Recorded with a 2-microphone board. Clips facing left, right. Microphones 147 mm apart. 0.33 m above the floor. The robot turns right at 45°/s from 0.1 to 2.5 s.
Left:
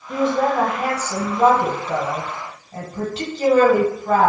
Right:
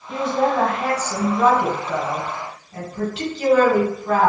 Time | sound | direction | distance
0.1 | a woman speaking | 20° right | 1.4 m